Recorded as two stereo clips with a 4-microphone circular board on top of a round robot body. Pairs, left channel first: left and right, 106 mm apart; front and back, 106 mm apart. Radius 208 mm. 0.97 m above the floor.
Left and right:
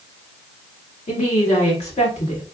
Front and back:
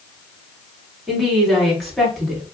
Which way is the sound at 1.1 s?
90° left.